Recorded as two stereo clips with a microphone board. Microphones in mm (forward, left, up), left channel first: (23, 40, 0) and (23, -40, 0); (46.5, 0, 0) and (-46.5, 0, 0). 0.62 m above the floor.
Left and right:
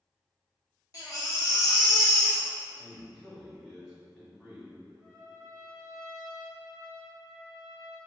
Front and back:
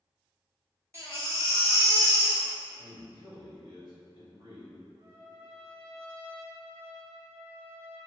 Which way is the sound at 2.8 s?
175° right.